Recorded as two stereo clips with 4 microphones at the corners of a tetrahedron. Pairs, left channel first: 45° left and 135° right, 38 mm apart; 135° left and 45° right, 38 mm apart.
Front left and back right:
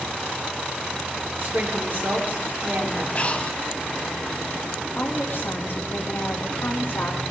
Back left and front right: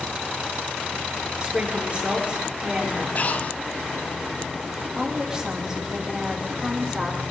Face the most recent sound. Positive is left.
turn(degrees=25)